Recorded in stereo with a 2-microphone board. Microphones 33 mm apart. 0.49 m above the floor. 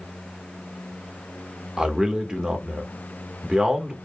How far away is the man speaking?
About 1.3 m.